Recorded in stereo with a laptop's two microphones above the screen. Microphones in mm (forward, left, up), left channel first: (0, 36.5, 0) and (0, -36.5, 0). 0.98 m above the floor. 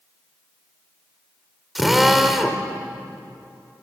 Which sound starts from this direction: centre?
A drill, at 1.8 s.